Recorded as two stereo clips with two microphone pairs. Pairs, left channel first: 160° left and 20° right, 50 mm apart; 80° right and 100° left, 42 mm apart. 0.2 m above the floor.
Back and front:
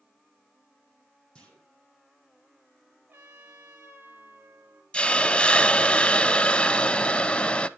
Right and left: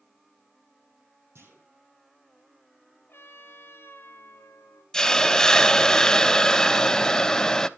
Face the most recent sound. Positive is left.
turn(degrees=-150)